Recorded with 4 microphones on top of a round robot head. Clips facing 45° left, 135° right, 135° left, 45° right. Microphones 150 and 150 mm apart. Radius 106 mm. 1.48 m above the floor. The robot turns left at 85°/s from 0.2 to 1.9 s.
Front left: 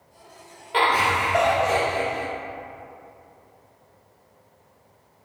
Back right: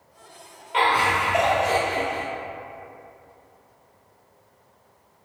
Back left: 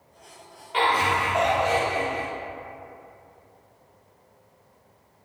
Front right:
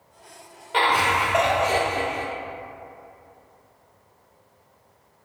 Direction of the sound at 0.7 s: 5° right.